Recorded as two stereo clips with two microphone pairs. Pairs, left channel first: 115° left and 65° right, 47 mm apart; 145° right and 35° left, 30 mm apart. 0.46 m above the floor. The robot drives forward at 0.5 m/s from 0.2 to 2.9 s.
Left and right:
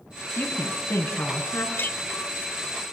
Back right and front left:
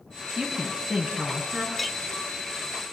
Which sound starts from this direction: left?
A woman speaking, at 0.4 s.